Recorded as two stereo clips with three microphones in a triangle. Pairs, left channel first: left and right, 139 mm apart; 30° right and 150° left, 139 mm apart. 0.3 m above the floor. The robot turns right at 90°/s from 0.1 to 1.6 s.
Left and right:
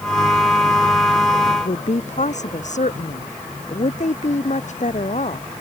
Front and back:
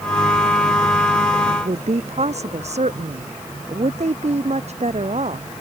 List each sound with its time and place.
1.5 s a woman speaking: 105° left; by 5.5 s 115° left